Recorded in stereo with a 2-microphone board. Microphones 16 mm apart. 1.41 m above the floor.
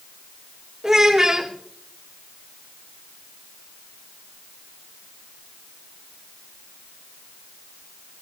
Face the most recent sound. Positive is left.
turn(degrees=-25)  # may be behind; listen again after turning